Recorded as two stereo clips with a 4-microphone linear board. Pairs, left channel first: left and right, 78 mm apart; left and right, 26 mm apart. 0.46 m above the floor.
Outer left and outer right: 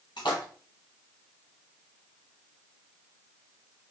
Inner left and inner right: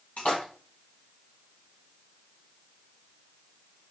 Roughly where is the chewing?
I don't hear chewing.